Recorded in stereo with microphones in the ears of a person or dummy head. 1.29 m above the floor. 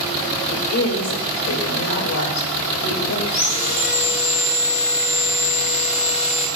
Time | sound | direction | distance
0.5 | a woman speaking | 75° left (ahead or behind) | 2 m
3.3 | sawing | 40° left (ahead or behind) | 1.7 m